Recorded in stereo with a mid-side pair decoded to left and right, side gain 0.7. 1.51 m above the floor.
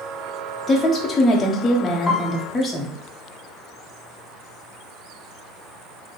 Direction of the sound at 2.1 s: 20° left.